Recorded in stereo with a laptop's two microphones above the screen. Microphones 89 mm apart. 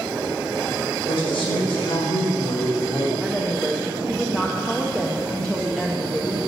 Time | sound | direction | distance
1.1 | a man speaking | 75° left (ahead or behind) | 4 m
3.2 | a woman speaking | 10° left (ahead or behind) | 0.7 m